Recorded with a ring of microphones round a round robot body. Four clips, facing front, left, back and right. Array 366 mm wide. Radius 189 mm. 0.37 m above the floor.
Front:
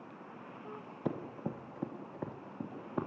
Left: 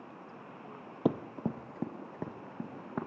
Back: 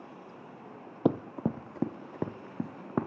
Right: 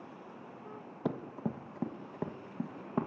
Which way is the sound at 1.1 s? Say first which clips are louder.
Left 5 dB, back 10 dB; 155° left.